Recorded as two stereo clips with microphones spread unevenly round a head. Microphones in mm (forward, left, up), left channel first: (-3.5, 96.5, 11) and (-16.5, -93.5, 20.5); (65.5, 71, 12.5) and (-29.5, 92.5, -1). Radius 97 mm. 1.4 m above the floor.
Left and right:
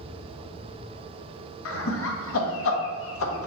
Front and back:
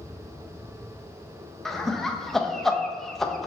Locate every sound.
1.6 s laughter: 75° left, 0.6 m